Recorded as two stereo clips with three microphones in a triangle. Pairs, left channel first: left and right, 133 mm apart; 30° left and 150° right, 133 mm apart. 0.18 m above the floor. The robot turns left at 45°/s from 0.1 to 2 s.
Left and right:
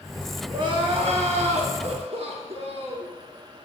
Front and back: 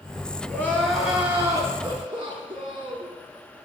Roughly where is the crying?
Ahead right.